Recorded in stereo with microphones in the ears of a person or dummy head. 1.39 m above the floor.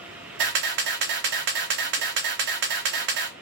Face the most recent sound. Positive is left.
turn(degrees=-50)  # may be behind; listen again after turning